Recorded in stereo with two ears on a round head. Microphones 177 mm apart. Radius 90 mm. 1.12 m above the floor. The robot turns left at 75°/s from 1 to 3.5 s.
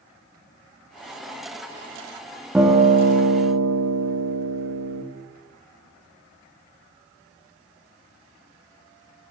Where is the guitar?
5° right, 1.0 m; by 5.0 s 75° right, 1.0 m.